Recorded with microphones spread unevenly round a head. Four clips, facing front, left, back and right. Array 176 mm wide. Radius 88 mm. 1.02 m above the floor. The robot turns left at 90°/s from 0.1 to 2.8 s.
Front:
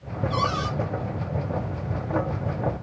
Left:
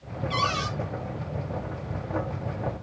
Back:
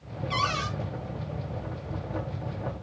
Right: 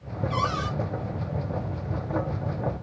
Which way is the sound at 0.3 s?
155° left.